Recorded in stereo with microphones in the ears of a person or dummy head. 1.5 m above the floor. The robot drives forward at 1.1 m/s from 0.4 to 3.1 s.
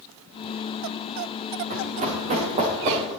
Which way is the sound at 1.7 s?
40° right (ahead or behind).